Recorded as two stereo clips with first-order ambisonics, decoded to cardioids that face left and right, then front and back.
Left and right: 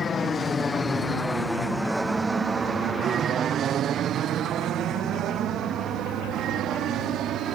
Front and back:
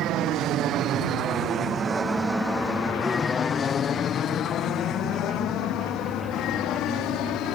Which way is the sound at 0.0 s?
155° left.